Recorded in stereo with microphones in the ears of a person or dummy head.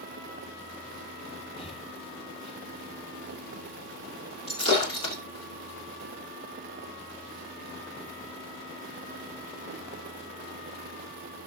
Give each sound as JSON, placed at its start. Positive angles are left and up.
{"t": 1.6, "sound": "breathing", "side_deg": 30, "distance_m": 1.9}
{"t": 4.5, "sound": "breaking glass", "side_deg": 30, "distance_m": 5.0}